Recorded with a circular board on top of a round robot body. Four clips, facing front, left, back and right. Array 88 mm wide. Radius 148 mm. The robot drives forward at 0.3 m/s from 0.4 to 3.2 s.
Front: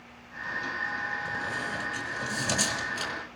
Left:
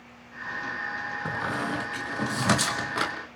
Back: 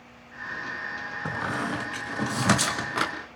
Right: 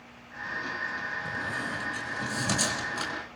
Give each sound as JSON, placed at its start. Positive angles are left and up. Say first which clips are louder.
{"t": 1.2, "sound": "a squeak", "louder": "left 8 dB, back 4 dB", "azimuth_deg": 145, "distance_m": 2.5}